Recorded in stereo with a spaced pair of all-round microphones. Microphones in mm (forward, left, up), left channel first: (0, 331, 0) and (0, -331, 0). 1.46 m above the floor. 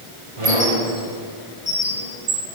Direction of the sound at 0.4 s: 50° right (ahead or behind).